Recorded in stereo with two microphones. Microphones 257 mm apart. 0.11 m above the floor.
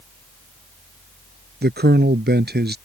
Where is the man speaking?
40° right (ahead or behind).